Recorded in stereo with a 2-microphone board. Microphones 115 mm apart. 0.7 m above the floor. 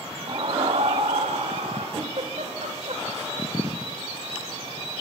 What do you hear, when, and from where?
0.3 s a scream: 40° right (ahead or behind), 0.7 m; by 1.9 s 80° right, 3 m
1.9 s a giggle: 70° right (ahead or behind), 2 m